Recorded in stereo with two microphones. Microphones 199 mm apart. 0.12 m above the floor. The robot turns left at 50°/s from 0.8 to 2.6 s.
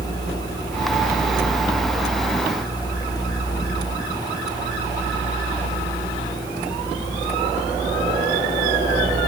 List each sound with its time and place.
Only background noise.